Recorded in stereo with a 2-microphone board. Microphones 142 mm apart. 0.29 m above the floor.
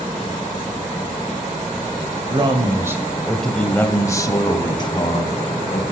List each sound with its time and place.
2.3 s a man speaking: 35° right (ahead or behind), 1.1 m; by 5.8 s 40° left (ahead or behind), 2.5 m